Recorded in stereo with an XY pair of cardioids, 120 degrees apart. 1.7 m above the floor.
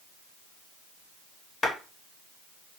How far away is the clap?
About 1.2 m.